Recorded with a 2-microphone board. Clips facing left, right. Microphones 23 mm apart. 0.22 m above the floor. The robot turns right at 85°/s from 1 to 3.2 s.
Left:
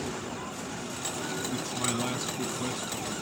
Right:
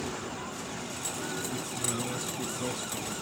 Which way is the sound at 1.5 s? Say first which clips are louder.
Left 3 dB; 60° left.